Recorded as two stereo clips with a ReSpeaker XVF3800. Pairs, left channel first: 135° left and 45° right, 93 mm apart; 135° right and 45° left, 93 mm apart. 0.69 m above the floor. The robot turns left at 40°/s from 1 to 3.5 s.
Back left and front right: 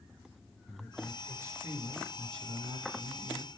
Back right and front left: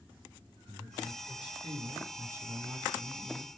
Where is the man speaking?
40° left, 7 m; by 3.5 s 60° right, 7 m.